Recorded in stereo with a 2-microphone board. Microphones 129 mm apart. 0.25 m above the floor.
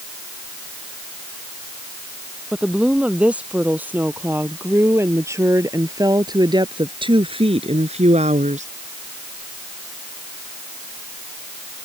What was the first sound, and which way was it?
A woman speaking, 5° right (ahead or behind).